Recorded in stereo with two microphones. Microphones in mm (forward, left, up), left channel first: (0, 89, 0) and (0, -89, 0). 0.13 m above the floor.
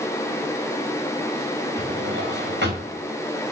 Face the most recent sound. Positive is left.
turn(degrees=-85)